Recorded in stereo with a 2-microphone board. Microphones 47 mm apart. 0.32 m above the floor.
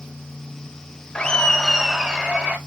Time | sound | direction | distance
1.1 | laughter | 20° left (ahead or behind) | 0.9 m